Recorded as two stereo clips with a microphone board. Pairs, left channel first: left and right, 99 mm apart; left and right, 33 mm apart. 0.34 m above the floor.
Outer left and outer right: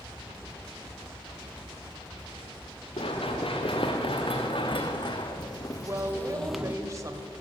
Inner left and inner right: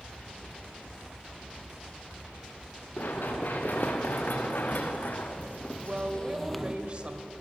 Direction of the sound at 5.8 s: 35° right (ahead or behind).